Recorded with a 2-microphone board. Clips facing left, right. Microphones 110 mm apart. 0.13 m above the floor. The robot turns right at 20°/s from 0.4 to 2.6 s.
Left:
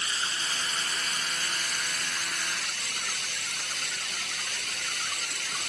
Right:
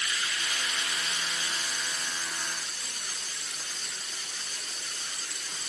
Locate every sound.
0.0 s running water: 35° left; by 5.7 s 80° left